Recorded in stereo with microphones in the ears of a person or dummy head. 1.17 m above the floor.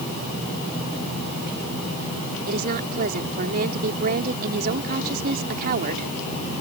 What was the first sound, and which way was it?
A woman speaking, 55° right (ahead or behind).